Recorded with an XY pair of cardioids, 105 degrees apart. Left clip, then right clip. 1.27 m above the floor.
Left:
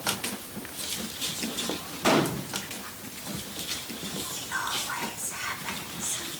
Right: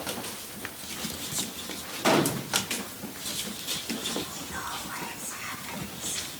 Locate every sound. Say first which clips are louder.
2.0 s a gunshot: even; straight ahead, 1.6 m
4.3 s whispering: left 5 dB; 70° left, 4 m